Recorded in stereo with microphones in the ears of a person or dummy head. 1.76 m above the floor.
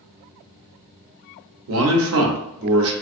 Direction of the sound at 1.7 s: 75° right (ahead or behind).